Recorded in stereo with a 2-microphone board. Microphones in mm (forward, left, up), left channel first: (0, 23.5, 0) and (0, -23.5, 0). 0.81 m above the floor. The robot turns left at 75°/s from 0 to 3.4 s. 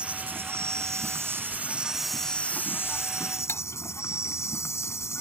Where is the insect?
25° right; by 5.2 s 80° left.